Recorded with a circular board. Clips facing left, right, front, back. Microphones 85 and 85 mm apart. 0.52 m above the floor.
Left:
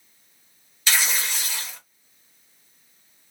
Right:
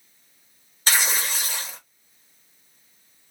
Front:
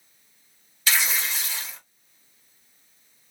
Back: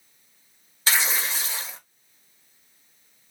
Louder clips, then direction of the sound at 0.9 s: Right 1 dB, back 1 dB; 130° right.